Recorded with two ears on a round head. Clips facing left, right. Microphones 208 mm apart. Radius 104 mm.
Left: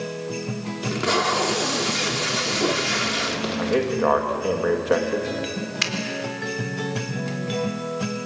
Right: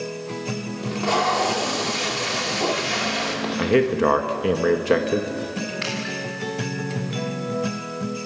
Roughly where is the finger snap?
Left.